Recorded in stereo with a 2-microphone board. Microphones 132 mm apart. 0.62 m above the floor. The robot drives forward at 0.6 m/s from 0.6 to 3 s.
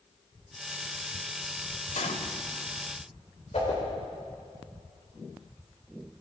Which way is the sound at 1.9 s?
80° left.